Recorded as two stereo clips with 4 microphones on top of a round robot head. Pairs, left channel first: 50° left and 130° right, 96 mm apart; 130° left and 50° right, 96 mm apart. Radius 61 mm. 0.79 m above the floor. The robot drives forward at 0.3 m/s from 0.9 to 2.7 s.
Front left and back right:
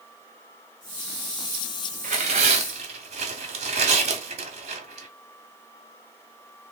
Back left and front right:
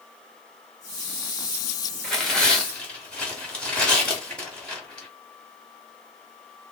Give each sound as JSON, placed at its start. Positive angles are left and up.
{"t": 2.0, "sound": "tearing paper", "azimuth_deg": -140, "distance_m": 0.8}